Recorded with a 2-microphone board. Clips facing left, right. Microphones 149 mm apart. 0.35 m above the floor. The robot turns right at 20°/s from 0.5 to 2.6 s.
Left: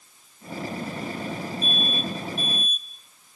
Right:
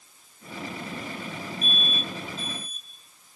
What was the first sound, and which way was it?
An alarm, 20° left (ahead or behind).